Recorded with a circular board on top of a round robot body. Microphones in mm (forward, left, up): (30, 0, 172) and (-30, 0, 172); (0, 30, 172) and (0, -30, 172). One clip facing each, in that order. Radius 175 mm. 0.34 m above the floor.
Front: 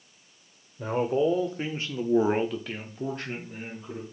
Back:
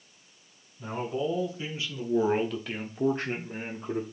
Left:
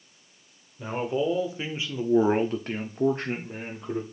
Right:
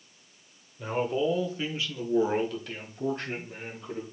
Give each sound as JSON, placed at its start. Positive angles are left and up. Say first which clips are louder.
{"t": 0.8, "sound": "a man speaking", "louder": "front 6 dB, even", "azimuth_deg": 10, "distance_m": 2.0}